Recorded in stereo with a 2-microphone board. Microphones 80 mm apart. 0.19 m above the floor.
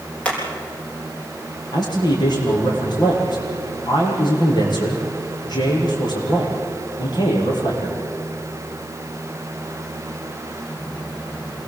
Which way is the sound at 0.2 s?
15° left (ahead or behind).